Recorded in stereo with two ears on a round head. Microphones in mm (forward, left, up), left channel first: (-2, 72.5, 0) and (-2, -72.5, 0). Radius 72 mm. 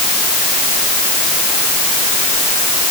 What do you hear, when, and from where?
Only background noise.